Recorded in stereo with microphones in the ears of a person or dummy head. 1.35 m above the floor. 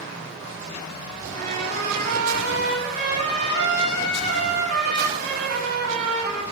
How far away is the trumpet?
About 8 m.